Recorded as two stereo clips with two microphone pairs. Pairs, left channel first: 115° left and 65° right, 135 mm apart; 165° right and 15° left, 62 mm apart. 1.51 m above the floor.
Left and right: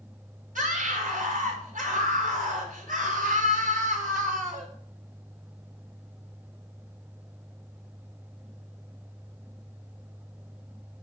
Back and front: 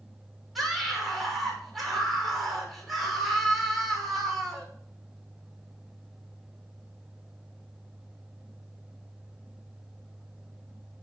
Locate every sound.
0.6 s a scream: 75° right, 6 m